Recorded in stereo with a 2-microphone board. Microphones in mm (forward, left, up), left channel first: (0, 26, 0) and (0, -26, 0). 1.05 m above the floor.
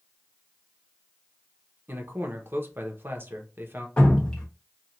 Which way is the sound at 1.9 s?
40° right (ahead or behind).